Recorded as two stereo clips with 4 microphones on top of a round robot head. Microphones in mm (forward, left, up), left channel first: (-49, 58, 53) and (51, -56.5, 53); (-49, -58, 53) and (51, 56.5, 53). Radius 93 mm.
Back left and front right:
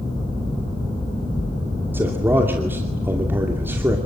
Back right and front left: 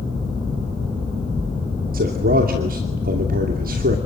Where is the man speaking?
30° left, 2.5 m.